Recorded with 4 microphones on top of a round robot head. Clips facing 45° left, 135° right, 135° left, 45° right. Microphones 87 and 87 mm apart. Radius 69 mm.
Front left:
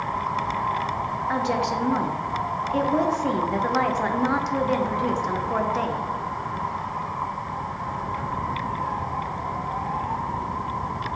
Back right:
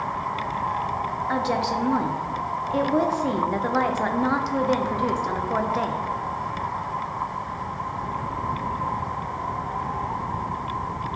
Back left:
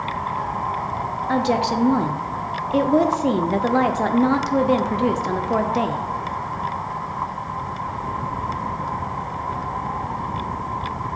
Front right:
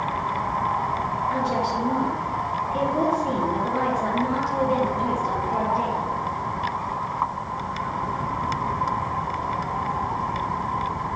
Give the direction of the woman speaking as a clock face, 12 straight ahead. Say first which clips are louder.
Even, back left 7 dB; 7 o'clock.